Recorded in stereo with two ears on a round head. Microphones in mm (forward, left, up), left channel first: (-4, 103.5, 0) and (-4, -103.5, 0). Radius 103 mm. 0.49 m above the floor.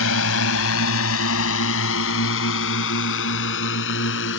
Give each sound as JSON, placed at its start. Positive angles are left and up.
{"t": 0.0, "sound": "a drone", "side_deg": 65}